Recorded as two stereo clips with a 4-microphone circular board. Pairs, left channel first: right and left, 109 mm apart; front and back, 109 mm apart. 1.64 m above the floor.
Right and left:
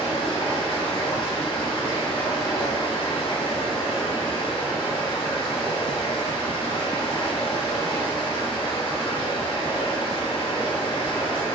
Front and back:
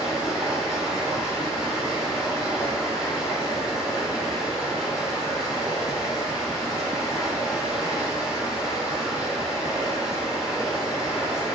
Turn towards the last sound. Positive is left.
turn(degrees=-95)